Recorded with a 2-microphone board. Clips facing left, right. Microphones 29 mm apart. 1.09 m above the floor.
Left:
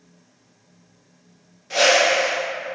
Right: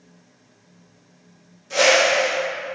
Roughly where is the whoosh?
Left.